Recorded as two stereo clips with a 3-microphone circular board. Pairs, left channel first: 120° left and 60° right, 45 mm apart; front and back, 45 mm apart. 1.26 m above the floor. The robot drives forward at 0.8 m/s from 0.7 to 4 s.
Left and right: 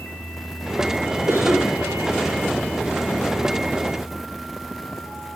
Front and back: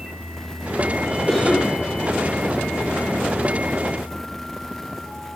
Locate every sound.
1.3 s a cough: 90° right, 5.5 m